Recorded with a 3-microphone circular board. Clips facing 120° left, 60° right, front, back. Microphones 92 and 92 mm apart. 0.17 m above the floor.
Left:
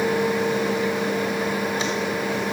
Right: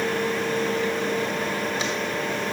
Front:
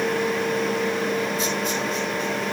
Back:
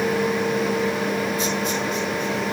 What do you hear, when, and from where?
Only background noise.